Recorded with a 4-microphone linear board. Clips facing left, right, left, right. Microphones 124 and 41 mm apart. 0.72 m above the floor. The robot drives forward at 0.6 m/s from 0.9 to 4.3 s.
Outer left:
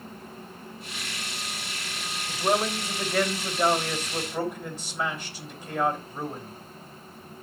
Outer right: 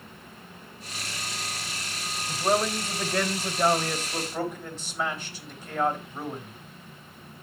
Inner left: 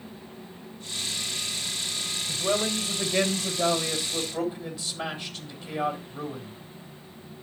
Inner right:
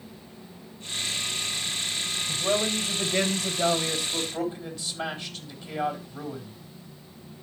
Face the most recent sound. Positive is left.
turn(degrees=10)  # may be behind; listen again after turning